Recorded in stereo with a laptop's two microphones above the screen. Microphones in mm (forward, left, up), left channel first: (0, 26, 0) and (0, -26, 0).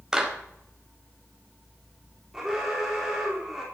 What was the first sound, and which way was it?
A clap, 10° right (ahead or behind).